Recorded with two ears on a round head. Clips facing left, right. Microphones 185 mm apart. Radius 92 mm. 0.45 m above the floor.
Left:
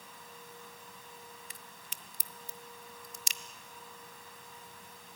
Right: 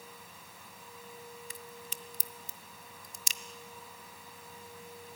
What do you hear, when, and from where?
1.5 s a crack: 75° right (ahead or behind), 1.0 m